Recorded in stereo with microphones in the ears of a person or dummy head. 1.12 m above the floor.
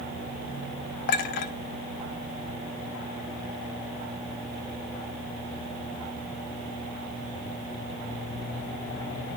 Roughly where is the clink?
Left.